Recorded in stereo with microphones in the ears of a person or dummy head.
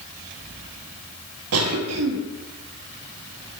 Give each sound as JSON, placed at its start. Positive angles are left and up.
{"t": 1.5, "sound": "a cough", "side_deg": -75, "distance_m": 0.9}